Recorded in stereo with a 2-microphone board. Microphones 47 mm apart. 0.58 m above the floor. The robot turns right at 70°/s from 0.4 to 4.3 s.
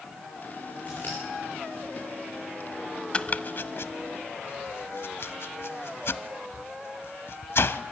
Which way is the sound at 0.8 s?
30° left (ahead or behind).